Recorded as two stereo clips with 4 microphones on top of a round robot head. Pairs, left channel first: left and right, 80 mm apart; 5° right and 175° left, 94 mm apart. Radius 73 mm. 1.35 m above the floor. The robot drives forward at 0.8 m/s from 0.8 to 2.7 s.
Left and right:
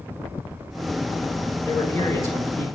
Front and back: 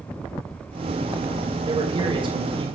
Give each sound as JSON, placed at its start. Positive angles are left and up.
{"t": 1.6, "sound": "a man speaking", "azimuth_deg": 140, "distance_m": 6.0}